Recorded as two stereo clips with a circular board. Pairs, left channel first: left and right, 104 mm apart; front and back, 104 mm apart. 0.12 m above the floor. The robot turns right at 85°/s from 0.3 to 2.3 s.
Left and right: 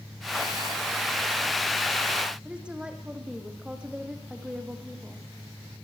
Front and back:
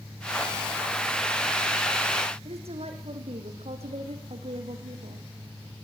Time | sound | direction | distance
2.5 | a woman speaking | 170° right | 5 m